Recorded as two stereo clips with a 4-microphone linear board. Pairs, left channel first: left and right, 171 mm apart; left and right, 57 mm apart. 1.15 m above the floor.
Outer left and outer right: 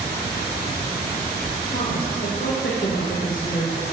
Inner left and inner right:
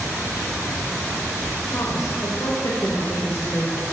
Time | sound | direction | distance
1.7 | a woman speaking | 65° left (ahead or behind) | 1.8 m